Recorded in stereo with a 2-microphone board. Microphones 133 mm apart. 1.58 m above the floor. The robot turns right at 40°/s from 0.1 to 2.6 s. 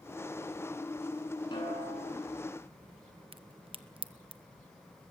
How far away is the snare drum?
About 9 m.